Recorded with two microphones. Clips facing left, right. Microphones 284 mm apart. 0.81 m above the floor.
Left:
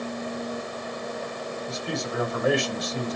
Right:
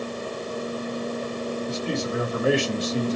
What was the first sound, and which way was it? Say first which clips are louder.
A man speaking: right 2 dB; 30° right (ahead or behind).